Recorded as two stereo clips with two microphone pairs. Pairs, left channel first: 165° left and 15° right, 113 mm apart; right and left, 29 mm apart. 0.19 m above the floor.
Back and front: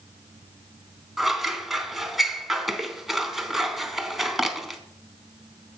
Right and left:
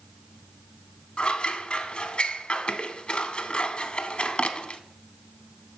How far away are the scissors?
About 0.6 m.